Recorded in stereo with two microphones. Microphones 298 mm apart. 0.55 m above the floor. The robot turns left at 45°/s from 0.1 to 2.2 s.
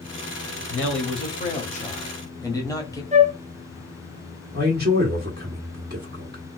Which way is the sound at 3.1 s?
25° right (ahead or behind).